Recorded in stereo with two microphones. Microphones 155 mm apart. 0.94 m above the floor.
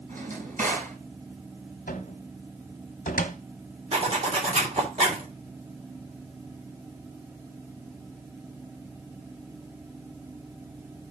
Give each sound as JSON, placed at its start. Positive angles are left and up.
{"t": 0.1, "sound": "a drawer", "side_deg": -60, "distance_m": 4.5}
{"t": 1.9, "sound": "a cupboard door", "side_deg": 60, "distance_m": 1.1}
{"t": 3.9, "sound": "a zipper", "side_deg": -45, "distance_m": 3.0}